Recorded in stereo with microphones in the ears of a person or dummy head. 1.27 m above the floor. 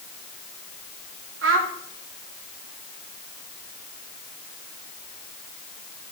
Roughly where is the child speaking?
Right.